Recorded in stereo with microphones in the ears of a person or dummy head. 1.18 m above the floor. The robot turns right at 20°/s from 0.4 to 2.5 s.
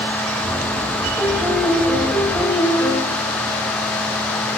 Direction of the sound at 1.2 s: 5° right (ahead or behind).